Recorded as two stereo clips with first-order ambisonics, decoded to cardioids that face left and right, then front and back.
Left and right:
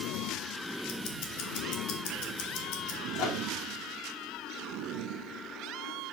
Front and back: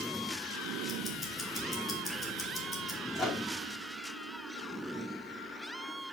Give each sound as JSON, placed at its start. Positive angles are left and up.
{"t": 0.9, "sound": "ticking", "azimuth_deg": 70, "distance_m": 2.0}
{"t": 3.1, "sound": "a microwave", "azimuth_deg": 70, "distance_m": 2.5}